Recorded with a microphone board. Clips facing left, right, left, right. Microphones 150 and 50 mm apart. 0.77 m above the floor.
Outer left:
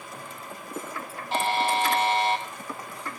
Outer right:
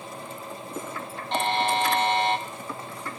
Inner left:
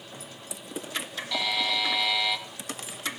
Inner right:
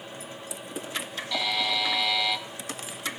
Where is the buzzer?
5° left (ahead or behind), 2.5 m.